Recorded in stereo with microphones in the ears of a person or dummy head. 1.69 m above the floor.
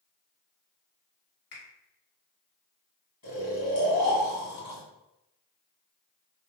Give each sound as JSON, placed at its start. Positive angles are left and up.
{"t": 1.5, "sound": "a finger snap", "side_deg": 60, "distance_m": 1.3}
{"t": 3.2, "sound": "snoring", "side_deg": 30, "distance_m": 1.9}